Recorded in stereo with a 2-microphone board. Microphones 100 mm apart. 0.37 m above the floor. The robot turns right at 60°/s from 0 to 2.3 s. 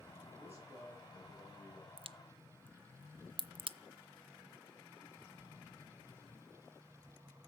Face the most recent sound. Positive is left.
turn(degrees=-60)  # may be behind; listen again after turning